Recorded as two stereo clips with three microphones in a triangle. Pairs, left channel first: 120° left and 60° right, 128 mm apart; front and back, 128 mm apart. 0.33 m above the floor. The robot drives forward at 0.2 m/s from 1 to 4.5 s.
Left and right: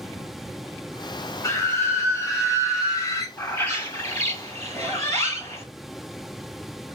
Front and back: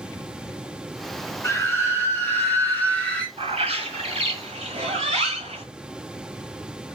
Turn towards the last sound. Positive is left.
turn(degrees=-175)